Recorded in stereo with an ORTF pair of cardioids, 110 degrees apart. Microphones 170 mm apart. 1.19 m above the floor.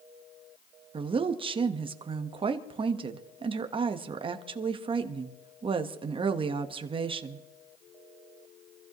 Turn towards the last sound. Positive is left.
turn(degrees=-30)